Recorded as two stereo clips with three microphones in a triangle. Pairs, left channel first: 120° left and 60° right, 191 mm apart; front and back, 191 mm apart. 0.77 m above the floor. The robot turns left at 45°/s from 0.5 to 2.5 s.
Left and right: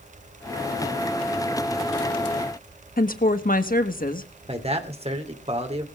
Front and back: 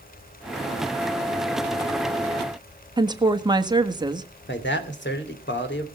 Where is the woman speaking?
120° left, 1.4 m.